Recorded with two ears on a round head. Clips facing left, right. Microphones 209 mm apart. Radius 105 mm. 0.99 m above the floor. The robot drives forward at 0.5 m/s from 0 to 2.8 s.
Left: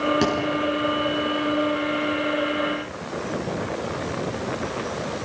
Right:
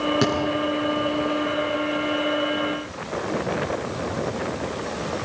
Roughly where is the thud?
Centre.